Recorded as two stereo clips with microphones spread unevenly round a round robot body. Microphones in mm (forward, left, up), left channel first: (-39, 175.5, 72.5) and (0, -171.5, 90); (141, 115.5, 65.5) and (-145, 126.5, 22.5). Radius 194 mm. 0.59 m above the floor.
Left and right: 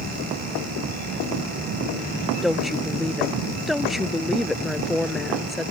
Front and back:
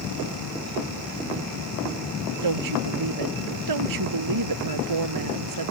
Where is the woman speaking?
175° right.